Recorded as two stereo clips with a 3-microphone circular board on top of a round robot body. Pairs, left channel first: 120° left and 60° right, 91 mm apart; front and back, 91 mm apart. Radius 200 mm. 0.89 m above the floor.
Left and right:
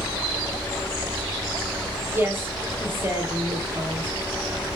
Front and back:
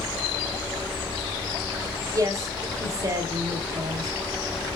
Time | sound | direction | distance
2.1 | a woman speaking | 130° right | 4 m